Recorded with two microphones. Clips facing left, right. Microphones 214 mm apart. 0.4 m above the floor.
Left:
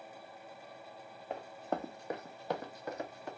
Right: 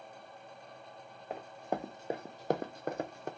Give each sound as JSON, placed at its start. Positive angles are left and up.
{"t": 1.3, "sound": "running footsteps", "side_deg": -5, "distance_m": 1.1}